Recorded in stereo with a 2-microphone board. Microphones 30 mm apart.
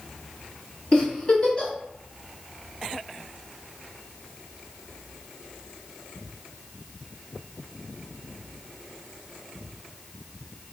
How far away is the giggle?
About 1.1 m.